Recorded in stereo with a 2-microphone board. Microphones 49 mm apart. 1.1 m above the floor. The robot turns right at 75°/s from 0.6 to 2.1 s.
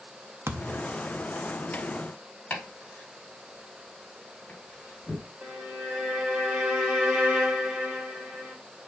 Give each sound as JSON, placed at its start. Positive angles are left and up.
{"t": 0.5, "sound": "a thud", "side_deg": -60, "distance_m": 0.7}
{"t": 2.5, "sound": "chopping", "side_deg": 30, "distance_m": 3.0}
{"t": 5.4, "sound": "a violin", "side_deg": -20, "distance_m": 1.2}